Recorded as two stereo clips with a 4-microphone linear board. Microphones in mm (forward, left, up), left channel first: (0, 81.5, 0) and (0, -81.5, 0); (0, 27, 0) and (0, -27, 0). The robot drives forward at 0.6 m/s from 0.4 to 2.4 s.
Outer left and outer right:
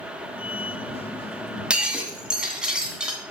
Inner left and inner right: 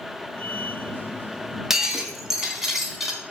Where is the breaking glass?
5° right (ahead or behind), 1.6 m.